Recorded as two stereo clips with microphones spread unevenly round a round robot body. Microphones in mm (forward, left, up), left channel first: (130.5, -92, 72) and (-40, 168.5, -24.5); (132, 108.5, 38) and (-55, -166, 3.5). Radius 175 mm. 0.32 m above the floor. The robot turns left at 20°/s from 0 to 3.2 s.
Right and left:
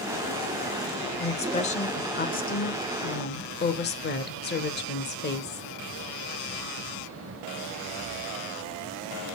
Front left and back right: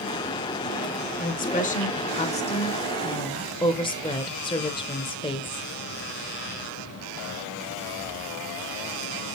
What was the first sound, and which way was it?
A woman speaking, 30° left.